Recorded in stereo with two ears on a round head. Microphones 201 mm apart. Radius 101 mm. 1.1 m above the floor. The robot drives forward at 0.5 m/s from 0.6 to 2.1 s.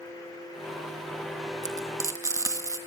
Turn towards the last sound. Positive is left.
turn(degrees=-15)  # may be behind; listen again after turning